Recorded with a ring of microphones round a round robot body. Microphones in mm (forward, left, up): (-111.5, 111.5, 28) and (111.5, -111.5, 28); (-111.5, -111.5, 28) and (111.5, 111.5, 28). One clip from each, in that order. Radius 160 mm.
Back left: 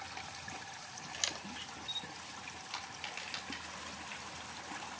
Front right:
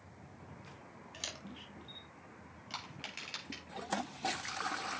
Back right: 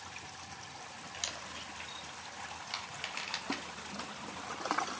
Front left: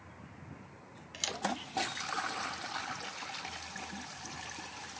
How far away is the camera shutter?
About 1.0 m.